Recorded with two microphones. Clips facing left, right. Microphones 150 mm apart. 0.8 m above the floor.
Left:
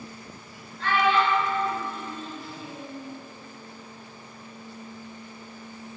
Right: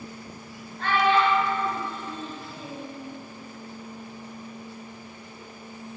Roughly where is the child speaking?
Right.